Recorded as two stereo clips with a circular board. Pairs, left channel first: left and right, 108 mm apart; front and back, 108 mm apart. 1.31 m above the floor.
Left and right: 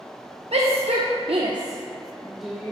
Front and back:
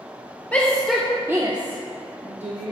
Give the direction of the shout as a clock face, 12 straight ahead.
3 o'clock.